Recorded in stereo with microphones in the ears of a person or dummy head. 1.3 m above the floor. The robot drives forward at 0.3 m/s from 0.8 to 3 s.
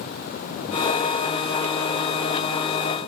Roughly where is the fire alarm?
I don't hear a fire alarm.